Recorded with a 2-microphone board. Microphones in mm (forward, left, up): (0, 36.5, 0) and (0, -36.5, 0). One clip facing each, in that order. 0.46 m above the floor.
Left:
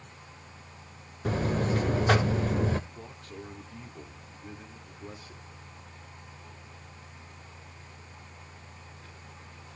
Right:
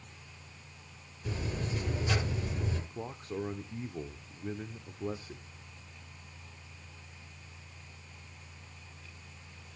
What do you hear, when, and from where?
1.2 s a buzzer: 60° left (ahead or behind), 1.0 m
2.9 s a man speaking: 30° right (ahead or behind), 1.0 m